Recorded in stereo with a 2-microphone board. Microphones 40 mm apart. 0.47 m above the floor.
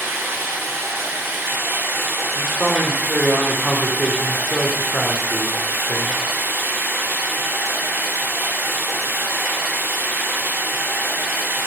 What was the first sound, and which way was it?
Running water, 70° right (ahead or behind).